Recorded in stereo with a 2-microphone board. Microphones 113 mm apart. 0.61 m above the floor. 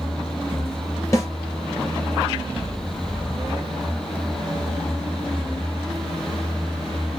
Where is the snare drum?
30° left (ahead or behind), 2 m.